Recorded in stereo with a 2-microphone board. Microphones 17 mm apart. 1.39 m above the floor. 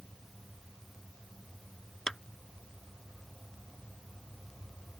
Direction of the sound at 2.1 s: 50° left (ahead or behind).